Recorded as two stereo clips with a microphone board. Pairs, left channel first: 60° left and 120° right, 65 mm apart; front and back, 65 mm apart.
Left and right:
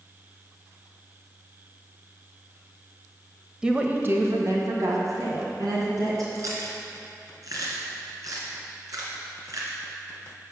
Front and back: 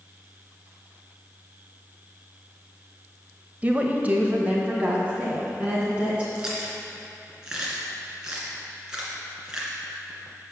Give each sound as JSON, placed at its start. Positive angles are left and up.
{"t": 3.6, "sound": "a woman speaking", "azimuth_deg": 180, "distance_m": 0.9}
{"t": 6.3, "sound": "chewing", "azimuth_deg": -105, "distance_m": 2.0}